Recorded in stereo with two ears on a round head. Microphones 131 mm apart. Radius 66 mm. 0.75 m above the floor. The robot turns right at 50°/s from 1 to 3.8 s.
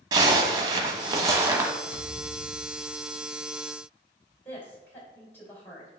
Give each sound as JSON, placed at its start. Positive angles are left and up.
{"t": 0.1, "sound": "a zipper", "side_deg": -25, "distance_m": 1.1}
{"t": 1.9, "sound": "a thud", "azimuth_deg": 80, "distance_m": 3.5}
{"t": 4.5, "sound": "a woman speaking", "side_deg": 15, "distance_m": 3.0}